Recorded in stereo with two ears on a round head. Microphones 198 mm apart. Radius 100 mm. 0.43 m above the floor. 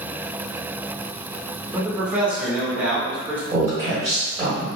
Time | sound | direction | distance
1.7 | a man speaking | 10° right (ahead or behind) | 0.9 m
3.5 | a woman speaking | 25° right (ahead or behind) | 1.5 m